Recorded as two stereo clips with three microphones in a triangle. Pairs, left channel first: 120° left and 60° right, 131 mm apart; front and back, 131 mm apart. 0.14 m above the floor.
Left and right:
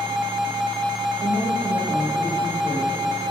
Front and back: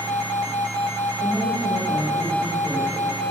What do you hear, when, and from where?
1.2 s a woman speaking: 85° left, 3.5 m; by 3.3 s 65° left, 3.5 m